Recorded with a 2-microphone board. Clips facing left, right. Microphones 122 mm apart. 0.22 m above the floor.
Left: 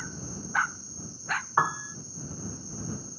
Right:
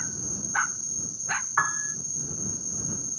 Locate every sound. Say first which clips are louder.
0.0 s an insect: even; 90° right
1.6 s a piano: left 3 dB; 25° left (ahead or behind)